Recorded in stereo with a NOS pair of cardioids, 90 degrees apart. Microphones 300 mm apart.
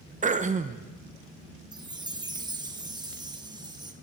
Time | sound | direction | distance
0.2 | throat clearing | 25° right | 0.9 m
1.7 | a chime | 15° right | 1.3 m